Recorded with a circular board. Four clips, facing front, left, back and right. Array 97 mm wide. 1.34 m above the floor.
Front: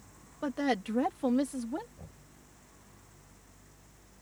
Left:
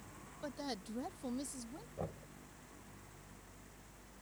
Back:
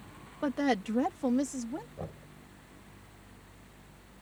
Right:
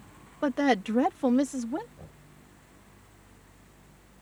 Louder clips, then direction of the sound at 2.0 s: Left 7 dB, back 11 dB; 140° left.